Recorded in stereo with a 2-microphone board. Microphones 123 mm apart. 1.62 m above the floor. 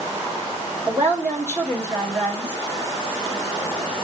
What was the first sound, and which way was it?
A woman speaking, 15° right (ahead or behind).